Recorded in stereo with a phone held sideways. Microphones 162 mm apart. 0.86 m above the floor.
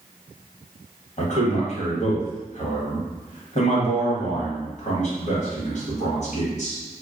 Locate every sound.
1.2 s a man speaking: 50° left (ahead or behind), 1.4 m